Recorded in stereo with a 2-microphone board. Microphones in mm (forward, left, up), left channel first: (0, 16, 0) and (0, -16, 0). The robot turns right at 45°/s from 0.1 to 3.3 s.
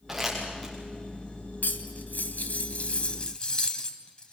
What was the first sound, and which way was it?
Crumpling, 10° right (ahead or behind).